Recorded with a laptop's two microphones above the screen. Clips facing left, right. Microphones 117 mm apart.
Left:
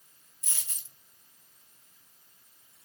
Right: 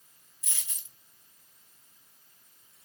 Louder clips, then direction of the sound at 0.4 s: Left 1 dB; 35° left (ahead or behind).